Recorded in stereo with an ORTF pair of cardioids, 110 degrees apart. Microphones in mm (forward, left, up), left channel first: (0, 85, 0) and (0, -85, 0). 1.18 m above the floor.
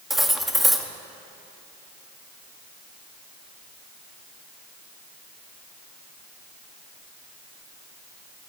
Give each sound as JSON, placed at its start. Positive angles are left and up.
{"t": 0.1, "sound": "cutlery clinking", "azimuth_deg": 0, "distance_m": 1.1}